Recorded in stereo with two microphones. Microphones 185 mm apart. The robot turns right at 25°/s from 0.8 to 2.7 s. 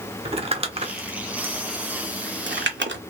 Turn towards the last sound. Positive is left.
turn(degrees=-80)